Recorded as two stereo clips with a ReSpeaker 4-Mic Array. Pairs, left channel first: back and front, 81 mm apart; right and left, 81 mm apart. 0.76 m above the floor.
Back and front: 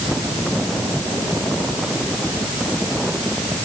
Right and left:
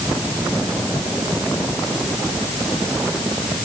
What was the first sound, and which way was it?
Only background noise.